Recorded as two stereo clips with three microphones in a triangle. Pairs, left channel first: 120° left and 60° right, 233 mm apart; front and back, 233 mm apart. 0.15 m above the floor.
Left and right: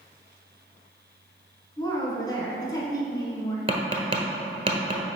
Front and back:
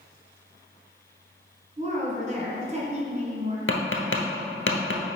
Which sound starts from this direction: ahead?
Tapping, at 3.7 s.